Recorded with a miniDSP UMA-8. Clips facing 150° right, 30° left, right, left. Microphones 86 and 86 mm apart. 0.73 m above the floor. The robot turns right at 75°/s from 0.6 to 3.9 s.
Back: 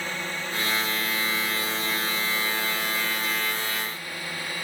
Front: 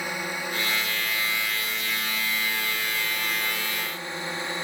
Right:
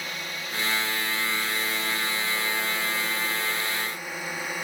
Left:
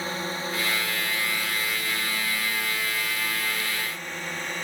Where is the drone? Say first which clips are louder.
Front 1 dB, left 5 dB; 95° left; by 4.6 s 15° right.